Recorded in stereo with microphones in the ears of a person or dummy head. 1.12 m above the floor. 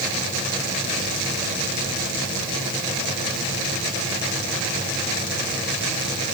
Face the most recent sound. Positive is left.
No sound to turn to.